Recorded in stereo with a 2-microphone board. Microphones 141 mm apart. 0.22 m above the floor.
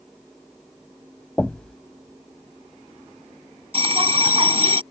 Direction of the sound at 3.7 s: 45° right (ahead or behind).